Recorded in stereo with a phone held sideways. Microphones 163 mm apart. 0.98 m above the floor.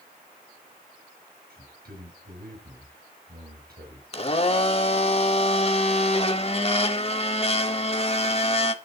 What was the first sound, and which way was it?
A man speaking, 75° right (ahead or behind).